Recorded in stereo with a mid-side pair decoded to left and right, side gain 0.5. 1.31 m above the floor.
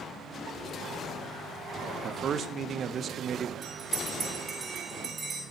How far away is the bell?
About 4.5 m.